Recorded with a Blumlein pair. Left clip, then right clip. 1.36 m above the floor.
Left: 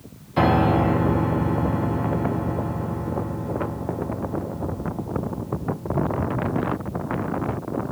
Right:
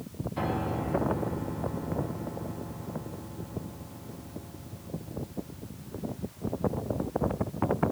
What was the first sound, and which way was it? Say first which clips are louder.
A piano: left 13 dB; 55° left.